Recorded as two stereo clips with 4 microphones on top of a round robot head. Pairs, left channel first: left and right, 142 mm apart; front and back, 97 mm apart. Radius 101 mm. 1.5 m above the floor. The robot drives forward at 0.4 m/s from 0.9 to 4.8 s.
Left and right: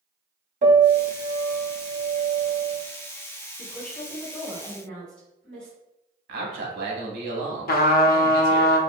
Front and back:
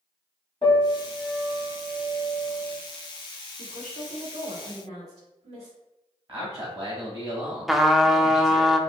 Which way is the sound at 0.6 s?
65° right.